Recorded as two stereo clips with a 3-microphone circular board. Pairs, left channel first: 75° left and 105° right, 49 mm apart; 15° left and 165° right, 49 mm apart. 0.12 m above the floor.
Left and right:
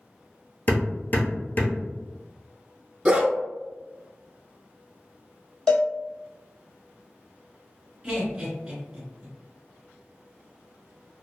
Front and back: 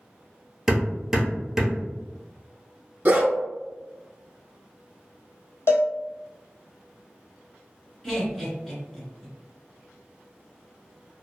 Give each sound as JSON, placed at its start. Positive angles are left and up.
{"t": 0.7, "sound": "hammering", "azimuth_deg": 115, "distance_m": 0.9}
{"t": 3.0, "sound": "a dog barking", "azimuth_deg": -155, "distance_m": 0.5}
{"t": 5.7, "sound": "a cowbell", "azimuth_deg": -5, "distance_m": 0.7}
{"t": 8.0, "sound": "laughter", "azimuth_deg": -50, "distance_m": 1.7}